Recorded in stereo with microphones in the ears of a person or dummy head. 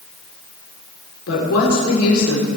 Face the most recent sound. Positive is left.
turn(degrees=75)  # may be behind; listen again after turning